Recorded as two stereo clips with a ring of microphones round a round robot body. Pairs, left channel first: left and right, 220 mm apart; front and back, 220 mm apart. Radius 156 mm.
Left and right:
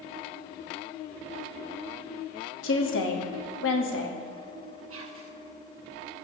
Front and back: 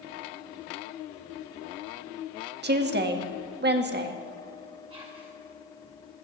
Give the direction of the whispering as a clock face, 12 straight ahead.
4 o'clock.